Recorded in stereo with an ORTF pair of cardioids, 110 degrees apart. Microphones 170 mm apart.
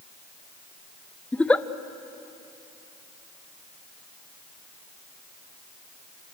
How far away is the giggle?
About 0.7 m.